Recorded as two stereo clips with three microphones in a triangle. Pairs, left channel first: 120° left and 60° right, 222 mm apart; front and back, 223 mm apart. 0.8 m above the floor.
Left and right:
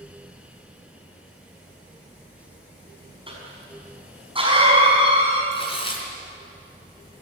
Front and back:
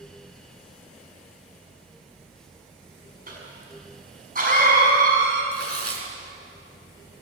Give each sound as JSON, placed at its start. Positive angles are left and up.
{"t": 3.3, "sound": "a cough", "azimuth_deg": -130, "distance_m": 7.0}
{"t": 5.5, "sound": "tearing paper", "azimuth_deg": -170, "distance_m": 4.0}